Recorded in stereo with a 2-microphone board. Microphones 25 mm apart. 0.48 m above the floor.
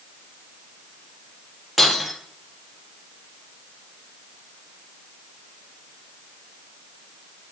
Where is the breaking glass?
10° right (ahead or behind), 3.5 m.